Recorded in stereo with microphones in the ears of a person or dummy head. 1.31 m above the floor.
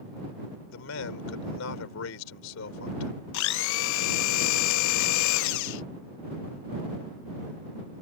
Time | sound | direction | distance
0.7 | a man speaking | 75° left (ahead or behind) | ?
3.3 | a blender | 70° left (ahead or behind) | ?